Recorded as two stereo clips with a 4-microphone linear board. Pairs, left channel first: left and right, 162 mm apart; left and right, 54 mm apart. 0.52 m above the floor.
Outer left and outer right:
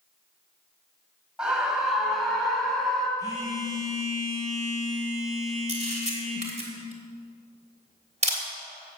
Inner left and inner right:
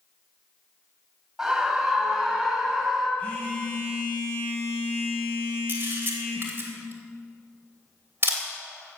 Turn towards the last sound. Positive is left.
turn(degrees=-45)  # may be behind; listen again after turning